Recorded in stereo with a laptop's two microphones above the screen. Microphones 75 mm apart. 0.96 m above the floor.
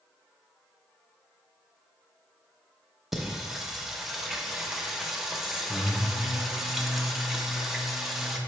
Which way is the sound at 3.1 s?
5° right (ahead or behind).